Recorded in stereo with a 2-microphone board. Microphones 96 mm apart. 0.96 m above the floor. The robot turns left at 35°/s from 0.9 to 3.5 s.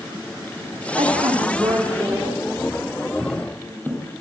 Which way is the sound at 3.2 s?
5° right (ahead or behind).